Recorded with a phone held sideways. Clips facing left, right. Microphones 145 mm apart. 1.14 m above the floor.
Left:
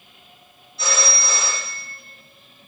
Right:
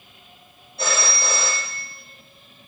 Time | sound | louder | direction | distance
0.8 | a phone ringing | even | 55° right (ahead or behind) | 1.8 m